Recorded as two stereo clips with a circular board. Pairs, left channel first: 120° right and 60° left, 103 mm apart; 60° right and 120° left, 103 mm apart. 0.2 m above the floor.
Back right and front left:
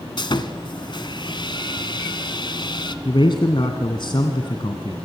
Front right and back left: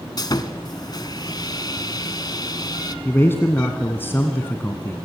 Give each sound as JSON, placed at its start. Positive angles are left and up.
{"t": 0.2, "sound": "sawing", "azimuth_deg": -95, "distance_m": 1.2}
{"t": 3.0, "sound": "a man speaking", "azimuth_deg": -120, "distance_m": 1.8}